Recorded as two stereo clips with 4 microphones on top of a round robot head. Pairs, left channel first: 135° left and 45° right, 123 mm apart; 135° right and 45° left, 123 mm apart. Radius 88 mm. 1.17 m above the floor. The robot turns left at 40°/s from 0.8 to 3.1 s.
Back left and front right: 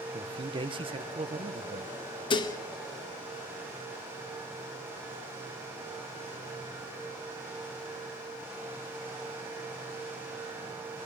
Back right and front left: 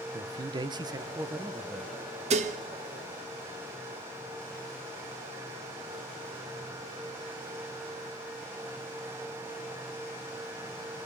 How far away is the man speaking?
About 1.1 m.